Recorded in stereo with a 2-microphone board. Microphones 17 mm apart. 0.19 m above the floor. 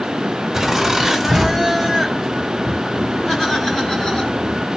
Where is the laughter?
10° right (ahead or behind), 1.6 m; by 4.6 s 50° left (ahead or behind), 2.5 m.